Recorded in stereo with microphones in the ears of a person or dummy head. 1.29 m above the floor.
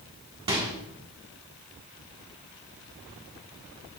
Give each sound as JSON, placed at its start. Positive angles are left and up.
{"t": 0.5, "sound": "a microwave", "side_deg": -25, "distance_m": 1.3}